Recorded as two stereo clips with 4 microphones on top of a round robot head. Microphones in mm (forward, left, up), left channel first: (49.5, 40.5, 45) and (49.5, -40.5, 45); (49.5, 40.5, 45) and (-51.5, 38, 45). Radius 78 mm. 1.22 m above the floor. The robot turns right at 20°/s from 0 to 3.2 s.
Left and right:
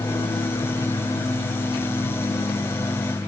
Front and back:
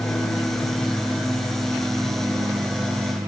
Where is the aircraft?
70° left; by 3.3 s 135° left.